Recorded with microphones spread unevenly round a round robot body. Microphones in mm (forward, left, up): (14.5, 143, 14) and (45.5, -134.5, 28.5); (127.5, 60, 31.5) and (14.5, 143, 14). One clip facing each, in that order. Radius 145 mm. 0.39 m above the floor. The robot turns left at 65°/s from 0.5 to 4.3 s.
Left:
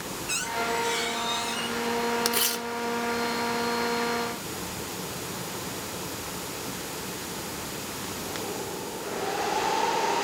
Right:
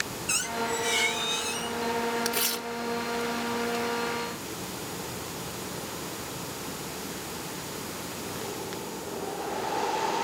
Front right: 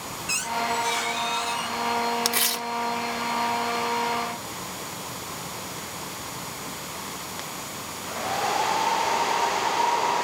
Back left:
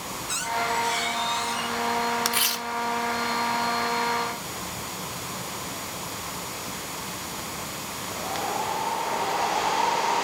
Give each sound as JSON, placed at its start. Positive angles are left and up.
{"t": 0.3, "sound": "a squeak", "azimuth_deg": -55, "distance_m": 6.0}
{"t": 2.2, "sound": "tearing paper", "azimuth_deg": 20, "distance_m": 1.1}